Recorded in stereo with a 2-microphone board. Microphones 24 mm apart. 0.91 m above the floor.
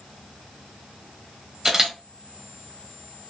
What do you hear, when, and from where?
1.6 s a camera shutter: 20° right (ahead or behind), 0.8 m